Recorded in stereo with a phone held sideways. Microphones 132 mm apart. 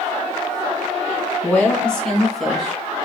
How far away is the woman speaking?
About 2 m.